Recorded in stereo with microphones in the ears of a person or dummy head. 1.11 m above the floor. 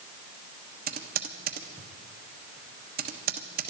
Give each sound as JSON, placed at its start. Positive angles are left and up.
{"t": 0.9, "sound": "typing on a keyboard", "side_deg": -45, "distance_m": 1.2}